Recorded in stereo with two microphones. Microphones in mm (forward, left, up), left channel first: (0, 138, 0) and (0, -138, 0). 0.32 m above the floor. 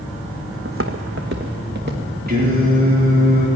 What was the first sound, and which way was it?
Footsteps, 50° right (ahead or behind).